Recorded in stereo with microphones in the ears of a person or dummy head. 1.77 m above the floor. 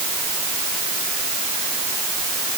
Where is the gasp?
I don't hear a gasp.